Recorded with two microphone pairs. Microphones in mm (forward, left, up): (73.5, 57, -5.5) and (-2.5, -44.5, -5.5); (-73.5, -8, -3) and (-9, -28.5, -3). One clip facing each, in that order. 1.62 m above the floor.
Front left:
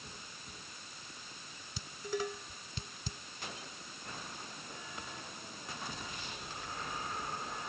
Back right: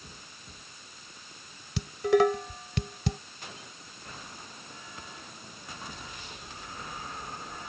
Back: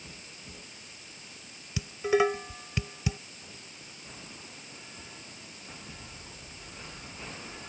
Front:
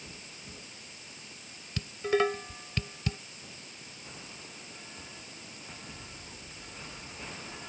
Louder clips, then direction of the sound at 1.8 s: Back right 15 dB, back 2 dB; 115° right.